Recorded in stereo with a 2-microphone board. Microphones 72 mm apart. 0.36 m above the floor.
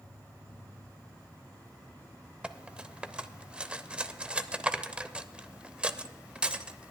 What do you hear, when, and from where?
0.0 s an insect: 60° right (ahead or behind), 3.5 m
2.4 s cutlery clinking: 15° right (ahead or behind), 0.6 m